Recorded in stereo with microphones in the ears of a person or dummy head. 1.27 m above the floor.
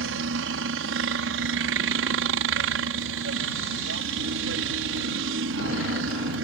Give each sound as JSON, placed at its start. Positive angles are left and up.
{"t": 0.0, "sound": "a helicopter", "side_deg": -60}